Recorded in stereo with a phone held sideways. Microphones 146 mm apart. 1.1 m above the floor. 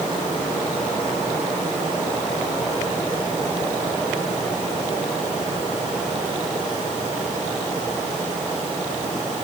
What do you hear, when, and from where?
Only background noise.